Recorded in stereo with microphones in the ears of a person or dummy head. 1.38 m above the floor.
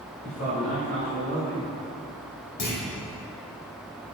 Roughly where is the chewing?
No chewing in this recording.